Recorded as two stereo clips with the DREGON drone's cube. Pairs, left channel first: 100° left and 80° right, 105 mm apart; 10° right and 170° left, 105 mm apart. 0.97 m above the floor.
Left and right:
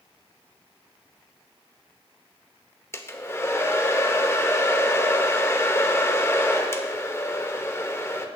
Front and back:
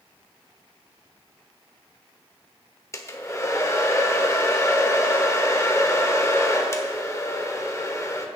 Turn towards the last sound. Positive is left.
turn(degrees=40)